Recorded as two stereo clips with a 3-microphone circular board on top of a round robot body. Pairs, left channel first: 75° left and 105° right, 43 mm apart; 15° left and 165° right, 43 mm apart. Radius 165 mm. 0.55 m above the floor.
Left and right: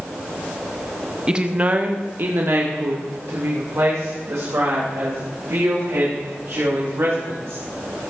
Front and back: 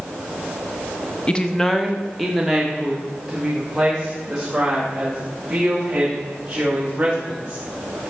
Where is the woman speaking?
40° right, 1.0 m; by 7.6 s 95° right, 5.5 m.